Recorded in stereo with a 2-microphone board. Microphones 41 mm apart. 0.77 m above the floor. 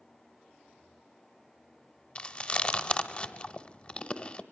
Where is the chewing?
25° left (ahead or behind), 0.9 m.